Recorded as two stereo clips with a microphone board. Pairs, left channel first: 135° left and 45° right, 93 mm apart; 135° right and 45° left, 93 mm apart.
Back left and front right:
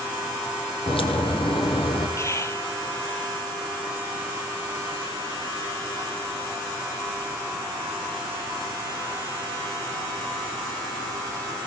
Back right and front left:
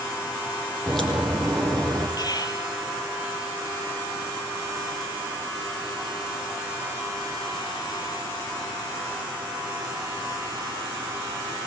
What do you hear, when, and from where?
0.9 s a crack: 140° left, 5.5 m
2.2 s whispering: 170° right, 2.5 m